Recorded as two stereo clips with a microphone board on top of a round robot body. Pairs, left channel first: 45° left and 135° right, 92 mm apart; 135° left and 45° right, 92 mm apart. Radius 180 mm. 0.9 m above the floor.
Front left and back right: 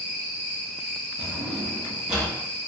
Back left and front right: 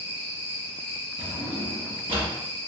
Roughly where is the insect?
Behind left.